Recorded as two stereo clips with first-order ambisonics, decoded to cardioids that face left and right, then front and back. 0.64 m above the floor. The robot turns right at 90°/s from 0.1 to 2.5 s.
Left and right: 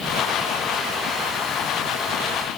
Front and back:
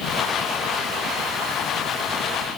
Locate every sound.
Only background noise.